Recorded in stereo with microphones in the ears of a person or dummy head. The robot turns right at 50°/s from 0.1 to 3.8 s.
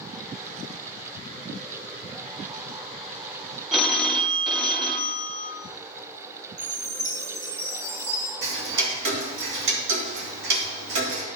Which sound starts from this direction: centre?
A phone ringing, at 3.7 s.